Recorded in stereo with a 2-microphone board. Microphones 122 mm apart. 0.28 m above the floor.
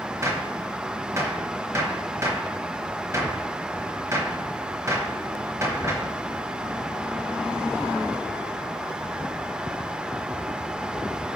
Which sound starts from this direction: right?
A gunshot, at 0.2 s.